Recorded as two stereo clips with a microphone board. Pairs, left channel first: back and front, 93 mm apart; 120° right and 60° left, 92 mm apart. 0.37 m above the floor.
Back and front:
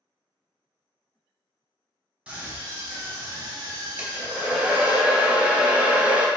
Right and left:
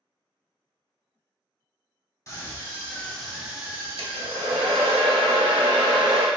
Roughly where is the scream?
Right.